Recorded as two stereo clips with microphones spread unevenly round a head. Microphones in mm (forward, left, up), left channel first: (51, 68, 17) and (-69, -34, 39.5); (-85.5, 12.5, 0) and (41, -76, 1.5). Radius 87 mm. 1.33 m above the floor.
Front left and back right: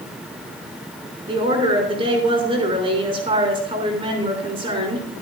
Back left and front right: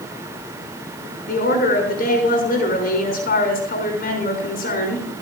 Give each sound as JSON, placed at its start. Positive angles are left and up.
{"t": 1.3, "sound": "a woman speaking", "azimuth_deg": 165, "distance_m": 6.0}